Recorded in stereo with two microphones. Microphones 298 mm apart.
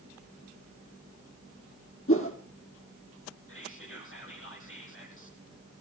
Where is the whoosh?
45° left (ahead or behind), 2.5 m.